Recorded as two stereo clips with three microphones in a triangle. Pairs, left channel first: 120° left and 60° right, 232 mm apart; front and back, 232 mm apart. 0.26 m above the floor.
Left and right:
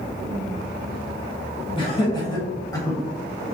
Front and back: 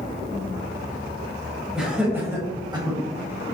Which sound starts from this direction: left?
Laughter, at 1.8 s.